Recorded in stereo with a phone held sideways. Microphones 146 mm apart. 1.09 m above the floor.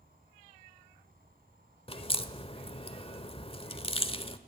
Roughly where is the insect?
Right.